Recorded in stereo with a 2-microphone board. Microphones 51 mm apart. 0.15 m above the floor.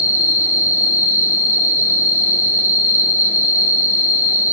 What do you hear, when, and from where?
0.0 s an insect: 40° right (ahead or behind), 1.5 m